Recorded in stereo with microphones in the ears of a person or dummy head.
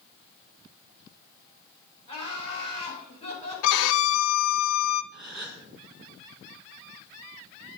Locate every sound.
2.1 s laughter: 20° left (ahead or behind), 6 m
3.6 s a violin: 75° left (ahead or behind), 0.6 m
5.1 s a gasp: 5° right (ahead or behind), 1.3 m